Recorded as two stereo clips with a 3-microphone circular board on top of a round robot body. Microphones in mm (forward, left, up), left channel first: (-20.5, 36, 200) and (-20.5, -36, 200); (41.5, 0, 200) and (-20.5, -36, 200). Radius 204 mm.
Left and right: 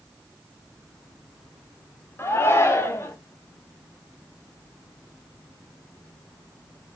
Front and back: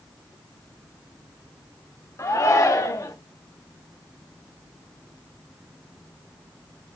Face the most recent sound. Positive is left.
turn(degrees=50)